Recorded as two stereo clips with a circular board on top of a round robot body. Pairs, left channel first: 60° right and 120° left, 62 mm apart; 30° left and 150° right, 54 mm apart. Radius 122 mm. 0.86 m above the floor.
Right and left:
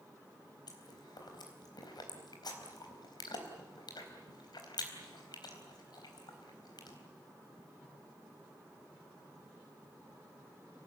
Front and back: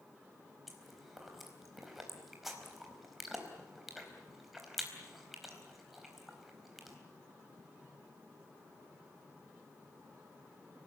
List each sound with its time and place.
0.7 s chewing: 65° right, 4 m